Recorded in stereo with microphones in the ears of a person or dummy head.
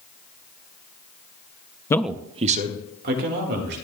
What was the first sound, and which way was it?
A man speaking, 20° left (ahead or behind).